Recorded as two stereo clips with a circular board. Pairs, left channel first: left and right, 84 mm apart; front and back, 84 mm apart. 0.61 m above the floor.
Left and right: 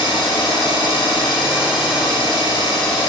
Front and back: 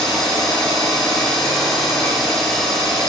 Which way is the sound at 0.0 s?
80° left.